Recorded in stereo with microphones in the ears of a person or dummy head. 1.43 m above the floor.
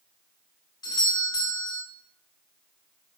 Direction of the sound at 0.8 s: 15° left (ahead or behind).